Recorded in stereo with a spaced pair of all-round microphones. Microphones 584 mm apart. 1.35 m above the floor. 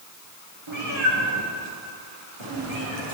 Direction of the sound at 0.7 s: 50° right (ahead or behind).